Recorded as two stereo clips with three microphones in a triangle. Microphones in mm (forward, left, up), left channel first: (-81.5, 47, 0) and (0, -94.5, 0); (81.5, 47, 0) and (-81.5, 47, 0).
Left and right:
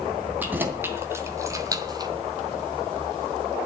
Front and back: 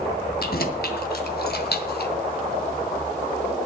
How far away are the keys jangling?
About 2.5 m.